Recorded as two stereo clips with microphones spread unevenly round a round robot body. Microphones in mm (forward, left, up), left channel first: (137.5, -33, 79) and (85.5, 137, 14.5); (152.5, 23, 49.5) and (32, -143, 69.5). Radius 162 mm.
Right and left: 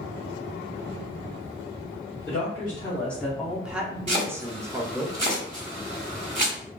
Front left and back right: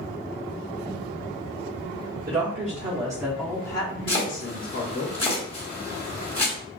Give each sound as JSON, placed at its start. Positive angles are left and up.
{"t": 2.3, "sound": "a woman speaking", "azimuth_deg": -165, "distance_m": 1.0}
{"t": 4.1, "sound": "chopping", "azimuth_deg": 110, "distance_m": 1.9}